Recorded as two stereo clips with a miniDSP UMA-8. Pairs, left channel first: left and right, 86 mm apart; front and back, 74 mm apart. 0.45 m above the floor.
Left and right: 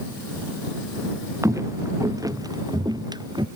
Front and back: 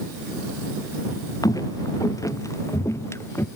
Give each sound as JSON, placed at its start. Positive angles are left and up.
{"t": 1.4, "sound": "footsteps", "azimuth_deg": -35}